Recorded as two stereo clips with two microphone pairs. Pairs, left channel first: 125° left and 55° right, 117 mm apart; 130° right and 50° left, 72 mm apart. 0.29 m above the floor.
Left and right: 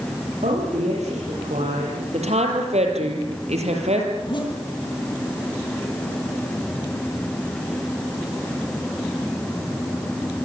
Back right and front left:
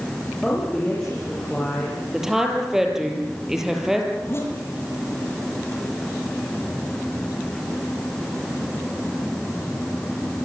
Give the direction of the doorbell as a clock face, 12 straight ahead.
No doorbell in this recording.